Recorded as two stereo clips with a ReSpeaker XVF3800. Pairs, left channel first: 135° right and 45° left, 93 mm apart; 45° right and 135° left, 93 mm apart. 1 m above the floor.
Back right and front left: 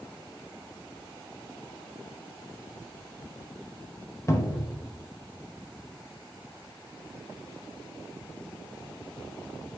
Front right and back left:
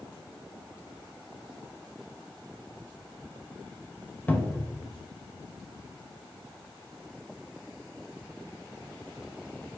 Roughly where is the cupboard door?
Right.